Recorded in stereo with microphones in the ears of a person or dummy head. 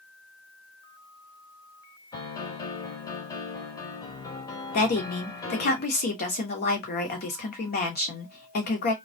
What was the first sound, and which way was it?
A piano, 15° left (ahead or behind).